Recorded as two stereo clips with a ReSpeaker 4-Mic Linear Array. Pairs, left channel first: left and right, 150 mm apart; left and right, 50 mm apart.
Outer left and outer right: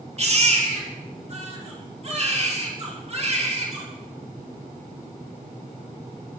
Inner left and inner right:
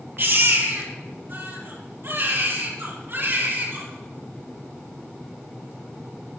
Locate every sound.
0.2 s a baby crying: 45° right (ahead or behind), 4.5 m